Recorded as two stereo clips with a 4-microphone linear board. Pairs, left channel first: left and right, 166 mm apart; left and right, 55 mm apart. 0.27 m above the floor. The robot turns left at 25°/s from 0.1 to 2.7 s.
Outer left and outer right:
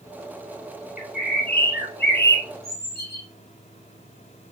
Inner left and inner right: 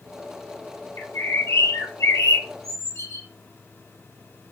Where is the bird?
120° left, 2.5 m; by 3.2 s 80° left, 2.5 m.